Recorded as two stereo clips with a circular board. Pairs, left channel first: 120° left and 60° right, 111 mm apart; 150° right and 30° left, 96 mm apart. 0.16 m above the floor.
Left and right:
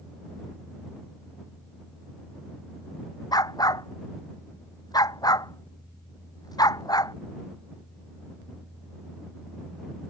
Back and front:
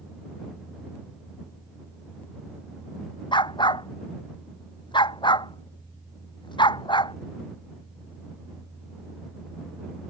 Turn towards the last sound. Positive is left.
turn(degrees=175)